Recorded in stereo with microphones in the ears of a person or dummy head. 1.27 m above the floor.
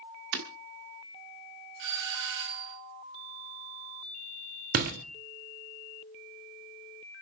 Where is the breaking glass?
50° right (ahead or behind), 1.1 m.